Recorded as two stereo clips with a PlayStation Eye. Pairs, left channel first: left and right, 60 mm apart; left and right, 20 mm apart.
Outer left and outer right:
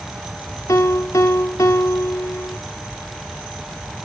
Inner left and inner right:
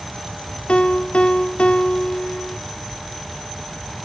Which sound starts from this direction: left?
A piano, at 0.7 s.